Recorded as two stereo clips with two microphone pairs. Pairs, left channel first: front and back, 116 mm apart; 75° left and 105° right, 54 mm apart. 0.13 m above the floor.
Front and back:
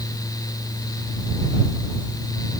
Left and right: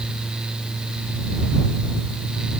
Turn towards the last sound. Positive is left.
No sound to turn to.